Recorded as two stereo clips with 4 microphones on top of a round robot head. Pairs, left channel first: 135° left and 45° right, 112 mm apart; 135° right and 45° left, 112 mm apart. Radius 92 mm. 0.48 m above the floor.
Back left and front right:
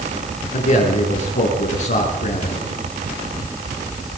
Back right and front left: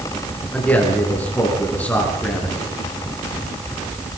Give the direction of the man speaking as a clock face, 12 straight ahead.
7 o'clock.